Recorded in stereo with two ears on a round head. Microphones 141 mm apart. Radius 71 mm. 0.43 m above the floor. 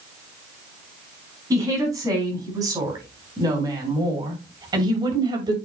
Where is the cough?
No cough in this recording.